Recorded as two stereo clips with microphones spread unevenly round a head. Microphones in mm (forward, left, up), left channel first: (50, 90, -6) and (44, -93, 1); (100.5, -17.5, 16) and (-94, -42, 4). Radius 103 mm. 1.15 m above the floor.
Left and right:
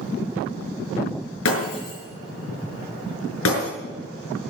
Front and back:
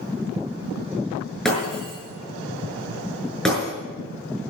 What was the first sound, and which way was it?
Breaking glass, 95° left.